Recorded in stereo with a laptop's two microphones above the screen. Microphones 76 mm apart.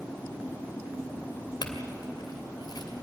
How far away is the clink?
About 2.5 m.